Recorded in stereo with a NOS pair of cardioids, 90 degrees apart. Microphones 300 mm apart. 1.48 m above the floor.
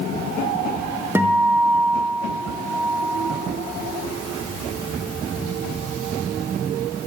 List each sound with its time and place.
1.1 s a guitar: 5° right, 0.8 m